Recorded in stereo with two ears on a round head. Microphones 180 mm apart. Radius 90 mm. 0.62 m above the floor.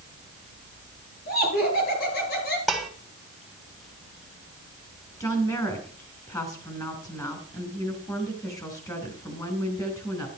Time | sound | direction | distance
1.3 | laughter | 50° left (ahead or behind) | 9.5 m
2.7 | dishes clattering | centre (ahead or behind) | 1.8 m
5.2 | a woman speaking | 15° left (ahead or behind) | 4.5 m